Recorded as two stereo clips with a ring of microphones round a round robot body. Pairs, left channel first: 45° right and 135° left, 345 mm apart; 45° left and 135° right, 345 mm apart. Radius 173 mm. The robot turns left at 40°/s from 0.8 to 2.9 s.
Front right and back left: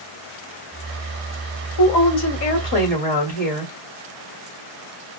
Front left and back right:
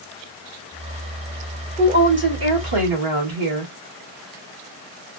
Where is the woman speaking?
65° right, 1.8 m; by 3.7 s 110° right, 1.8 m.